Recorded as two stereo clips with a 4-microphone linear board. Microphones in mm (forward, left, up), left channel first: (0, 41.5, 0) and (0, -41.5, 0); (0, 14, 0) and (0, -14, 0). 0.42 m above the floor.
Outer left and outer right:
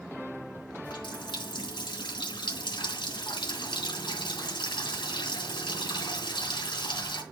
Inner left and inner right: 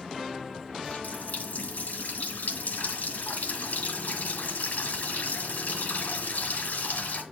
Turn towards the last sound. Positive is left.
turn(degrees=75)  # may be behind; listen again after turning